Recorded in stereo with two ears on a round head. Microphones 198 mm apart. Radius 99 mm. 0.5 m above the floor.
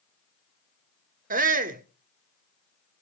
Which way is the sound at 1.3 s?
40° right (ahead or behind).